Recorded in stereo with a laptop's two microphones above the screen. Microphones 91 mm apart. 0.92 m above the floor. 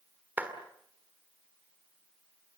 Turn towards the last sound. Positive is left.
turn(degrees=-20)  # may be behind; listen again after turning